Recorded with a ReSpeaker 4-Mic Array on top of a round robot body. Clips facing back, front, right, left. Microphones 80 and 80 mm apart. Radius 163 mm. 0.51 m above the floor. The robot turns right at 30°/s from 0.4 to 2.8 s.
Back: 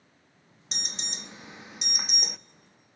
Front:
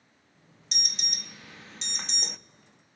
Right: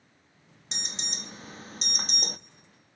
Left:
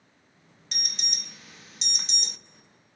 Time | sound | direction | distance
0.7 | an alarm | 145° right | 0.5 m